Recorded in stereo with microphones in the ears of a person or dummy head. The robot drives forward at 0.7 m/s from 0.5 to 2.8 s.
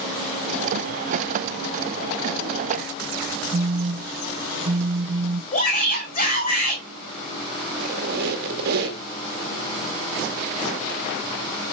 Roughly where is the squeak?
Right.